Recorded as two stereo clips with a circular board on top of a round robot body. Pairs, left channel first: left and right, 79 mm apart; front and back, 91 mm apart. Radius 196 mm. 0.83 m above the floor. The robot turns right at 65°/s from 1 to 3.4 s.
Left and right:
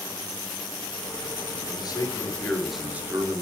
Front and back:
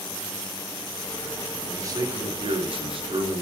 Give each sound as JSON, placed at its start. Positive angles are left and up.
{"t": 1.7, "sound": "a man speaking", "azimuth_deg": 115, "distance_m": 4.0}